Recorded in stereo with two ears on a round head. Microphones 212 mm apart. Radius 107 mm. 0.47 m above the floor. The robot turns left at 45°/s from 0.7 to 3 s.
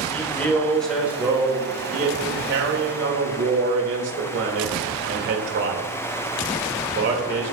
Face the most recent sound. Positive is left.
turn(degrees=-95)